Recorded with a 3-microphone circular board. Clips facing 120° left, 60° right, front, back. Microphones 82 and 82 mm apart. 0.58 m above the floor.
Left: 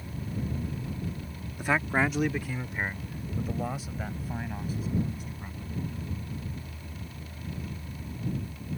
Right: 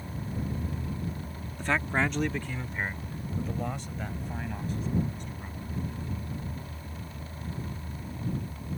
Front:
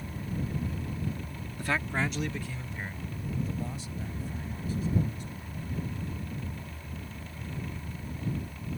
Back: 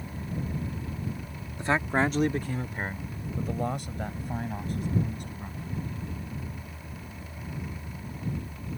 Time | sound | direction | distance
1.6 | a man speaking | 175° right | ?